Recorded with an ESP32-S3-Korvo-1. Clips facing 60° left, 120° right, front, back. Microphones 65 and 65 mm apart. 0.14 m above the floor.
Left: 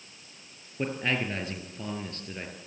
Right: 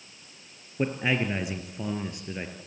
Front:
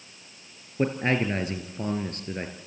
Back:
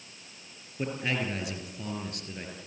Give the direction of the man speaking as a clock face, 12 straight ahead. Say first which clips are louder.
Right 3 dB, front 7 dB; 1 o'clock.